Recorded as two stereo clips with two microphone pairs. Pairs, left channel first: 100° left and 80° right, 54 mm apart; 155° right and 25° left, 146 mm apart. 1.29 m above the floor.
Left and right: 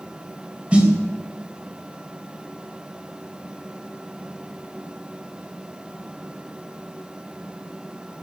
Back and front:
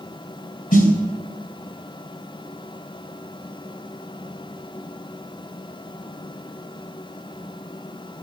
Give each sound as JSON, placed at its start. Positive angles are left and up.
{"t": 0.7, "sound": "a snare drum", "azimuth_deg": -145, "distance_m": 3.5}